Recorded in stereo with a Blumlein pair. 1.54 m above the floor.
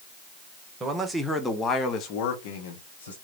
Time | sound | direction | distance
0.8 | a man speaking | 20° right | 1.2 m